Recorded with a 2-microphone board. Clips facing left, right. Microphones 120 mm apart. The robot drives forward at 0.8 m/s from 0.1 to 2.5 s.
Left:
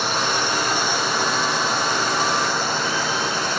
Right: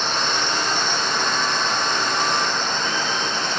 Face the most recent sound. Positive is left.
turn(degrees=10)  # may be behind; listen again after turning